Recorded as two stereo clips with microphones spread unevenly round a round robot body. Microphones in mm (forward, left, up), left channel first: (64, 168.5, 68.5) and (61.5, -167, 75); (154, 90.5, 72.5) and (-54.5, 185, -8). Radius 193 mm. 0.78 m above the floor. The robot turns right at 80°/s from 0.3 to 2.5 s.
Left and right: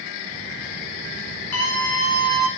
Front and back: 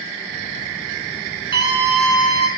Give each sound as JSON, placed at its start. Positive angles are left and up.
{"t": 1.5, "sound": "a scream", "azimuth_deg": 110, "distance_m": 9.0}